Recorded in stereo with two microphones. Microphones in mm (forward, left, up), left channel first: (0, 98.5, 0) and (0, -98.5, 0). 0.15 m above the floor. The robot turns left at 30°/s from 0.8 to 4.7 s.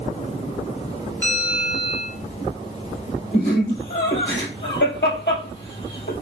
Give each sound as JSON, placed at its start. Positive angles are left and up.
{"t": 1.2, "sound": "a bell", "side_deg": 10, "distance_m": 2.0}
{"t": 3.3, "sound": "laughter", "side_deg": 55, "distance_m": 3.0}